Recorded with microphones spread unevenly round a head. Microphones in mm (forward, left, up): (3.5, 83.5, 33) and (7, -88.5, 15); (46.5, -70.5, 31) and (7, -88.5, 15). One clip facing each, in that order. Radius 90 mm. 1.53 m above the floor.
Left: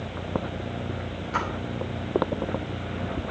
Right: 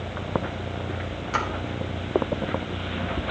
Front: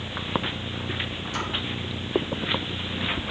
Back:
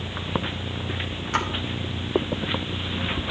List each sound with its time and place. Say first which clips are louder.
1.3 s a splash: right 1 dB, back 6 dB; 120° right, 1.6 m